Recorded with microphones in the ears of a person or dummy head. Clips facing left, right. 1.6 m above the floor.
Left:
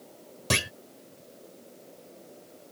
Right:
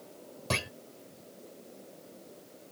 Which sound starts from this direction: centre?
A clunk, at 0.5 s.